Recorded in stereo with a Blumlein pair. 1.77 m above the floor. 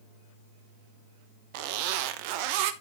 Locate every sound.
1.5 s a zipper: 45° right, 1.0 m